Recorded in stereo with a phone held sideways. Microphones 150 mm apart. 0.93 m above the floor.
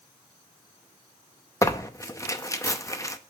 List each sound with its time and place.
1.6 s tearing paper: 25° left (ahead or behind), 0.7 m